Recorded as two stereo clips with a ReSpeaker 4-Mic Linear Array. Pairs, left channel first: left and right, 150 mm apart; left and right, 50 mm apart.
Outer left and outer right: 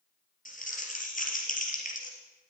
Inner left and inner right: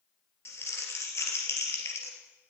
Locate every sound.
0.5 s crumpling: 60° left (ahead or behind), 3 m